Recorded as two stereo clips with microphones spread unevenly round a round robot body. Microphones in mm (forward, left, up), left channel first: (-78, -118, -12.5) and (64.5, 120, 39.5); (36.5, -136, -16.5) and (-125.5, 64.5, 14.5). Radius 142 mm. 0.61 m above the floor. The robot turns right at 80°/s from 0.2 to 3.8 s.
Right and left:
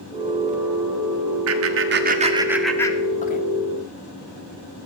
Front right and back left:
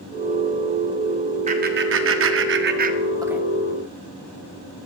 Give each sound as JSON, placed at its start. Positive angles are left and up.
{"t": 1.5, "sound": "laughter", "azimuth_deg": 65, "distance_m": 1.5}